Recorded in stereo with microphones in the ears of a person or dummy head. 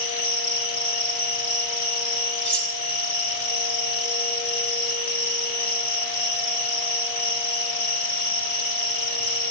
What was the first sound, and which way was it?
An insect, 55° left (ahead or behind).